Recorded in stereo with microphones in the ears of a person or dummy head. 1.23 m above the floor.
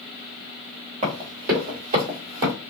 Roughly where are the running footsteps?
Right.